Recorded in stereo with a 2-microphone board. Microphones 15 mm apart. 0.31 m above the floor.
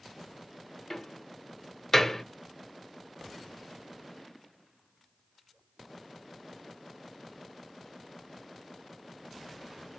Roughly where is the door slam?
Centre.